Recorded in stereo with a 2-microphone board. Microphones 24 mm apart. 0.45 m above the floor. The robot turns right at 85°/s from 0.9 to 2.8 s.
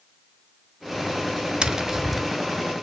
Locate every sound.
1.6 s tapping: 50° right, 0.8 m; by 2.2 s 5° left, 0.8 m